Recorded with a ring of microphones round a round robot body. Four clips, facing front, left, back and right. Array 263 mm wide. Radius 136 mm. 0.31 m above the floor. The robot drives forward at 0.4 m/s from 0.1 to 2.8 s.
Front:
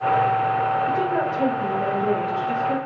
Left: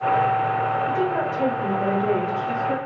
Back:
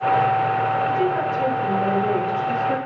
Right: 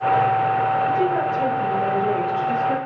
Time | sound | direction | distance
0.9 | a woman speaking | 20° left | 1.0 m